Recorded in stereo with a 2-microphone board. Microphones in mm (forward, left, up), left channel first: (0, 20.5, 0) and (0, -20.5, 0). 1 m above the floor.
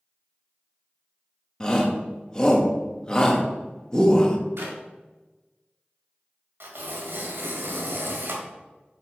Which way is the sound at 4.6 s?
85° right.